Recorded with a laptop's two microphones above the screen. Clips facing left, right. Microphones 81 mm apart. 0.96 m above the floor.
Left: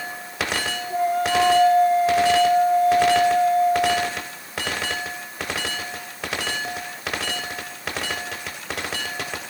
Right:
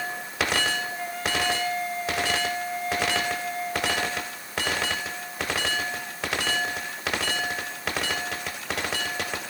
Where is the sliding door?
I don't hear a sliding door.